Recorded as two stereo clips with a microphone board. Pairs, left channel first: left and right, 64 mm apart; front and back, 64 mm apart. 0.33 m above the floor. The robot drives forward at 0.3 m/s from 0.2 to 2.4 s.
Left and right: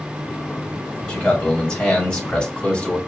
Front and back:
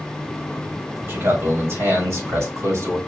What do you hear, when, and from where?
1.1 s a man speaking: 155° left, 2 m; by 3.0 s 160° left, 2.5 m